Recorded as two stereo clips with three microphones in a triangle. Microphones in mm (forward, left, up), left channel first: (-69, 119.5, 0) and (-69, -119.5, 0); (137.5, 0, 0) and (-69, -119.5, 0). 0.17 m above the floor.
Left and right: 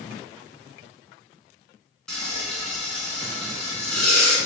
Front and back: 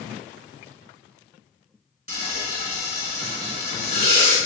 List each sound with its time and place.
2.1 s frying: 175° left, 1.6 m